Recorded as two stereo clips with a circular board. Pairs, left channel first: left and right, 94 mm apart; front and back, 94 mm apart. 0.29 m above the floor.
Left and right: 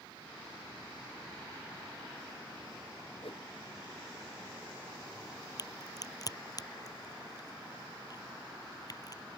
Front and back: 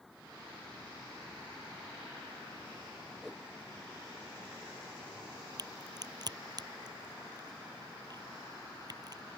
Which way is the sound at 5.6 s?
135° left.